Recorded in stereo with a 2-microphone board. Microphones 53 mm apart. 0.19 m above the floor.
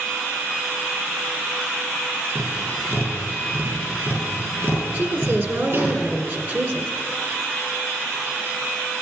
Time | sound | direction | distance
2.4 | tapping | 50° right (ahead or behind) | 4.5 m
4.9 | a woman speaking | 45° right (ahead or behind) | 1.9 m